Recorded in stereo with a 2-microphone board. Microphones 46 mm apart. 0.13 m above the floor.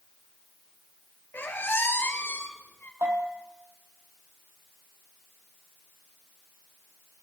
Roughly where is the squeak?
Left.